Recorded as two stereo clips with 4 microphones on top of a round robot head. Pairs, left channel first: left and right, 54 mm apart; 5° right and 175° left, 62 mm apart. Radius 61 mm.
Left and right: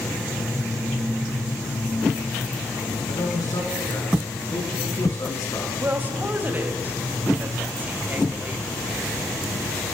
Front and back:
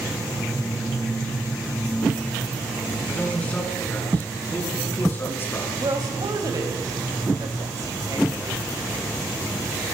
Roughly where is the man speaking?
Ahead left.